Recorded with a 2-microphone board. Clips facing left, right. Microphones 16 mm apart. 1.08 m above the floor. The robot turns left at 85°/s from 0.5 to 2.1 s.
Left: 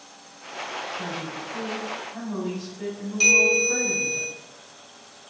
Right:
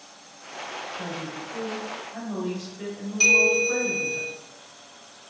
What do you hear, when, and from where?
0.9 s a woman speaking: 65° right, 1.0 m; by 4.2 s 160° right, 1.0 m
3.2 s a bell: 5° left (ahead or behind), 1.2 m